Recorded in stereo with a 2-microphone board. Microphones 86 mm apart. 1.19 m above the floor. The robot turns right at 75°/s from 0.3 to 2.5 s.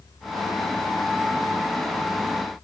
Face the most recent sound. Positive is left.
No sound to turn to.